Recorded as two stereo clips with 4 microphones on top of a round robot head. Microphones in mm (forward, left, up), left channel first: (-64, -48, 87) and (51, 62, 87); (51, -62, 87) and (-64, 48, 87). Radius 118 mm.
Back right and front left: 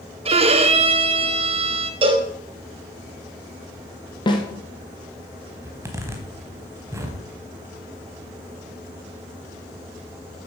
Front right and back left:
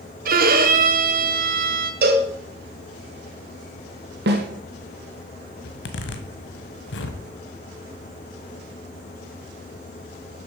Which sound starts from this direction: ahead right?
A zipper, at 5.6 s.